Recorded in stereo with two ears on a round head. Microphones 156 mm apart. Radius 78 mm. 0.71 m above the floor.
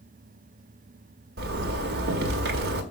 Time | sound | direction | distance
1.4 | a zipper | 70° right (ahead or behind) | 1.6 m